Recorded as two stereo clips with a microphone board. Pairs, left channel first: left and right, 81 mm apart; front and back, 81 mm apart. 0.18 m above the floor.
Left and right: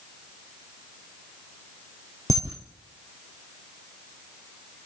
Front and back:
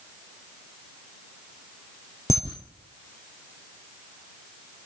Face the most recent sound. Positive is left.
turn(degrees=50)